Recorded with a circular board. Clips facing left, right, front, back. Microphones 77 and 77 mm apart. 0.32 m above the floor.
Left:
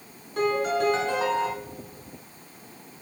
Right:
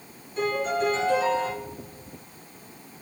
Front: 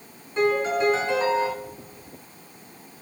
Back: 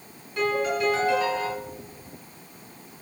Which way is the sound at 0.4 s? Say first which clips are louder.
Left 2 dB, front 3 dB; 65° left.